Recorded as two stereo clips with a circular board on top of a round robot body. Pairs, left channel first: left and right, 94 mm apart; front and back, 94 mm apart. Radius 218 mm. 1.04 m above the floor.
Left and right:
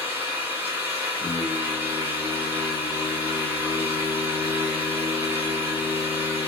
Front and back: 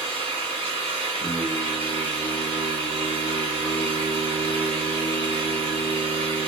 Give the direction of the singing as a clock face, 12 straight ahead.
7 o'clock.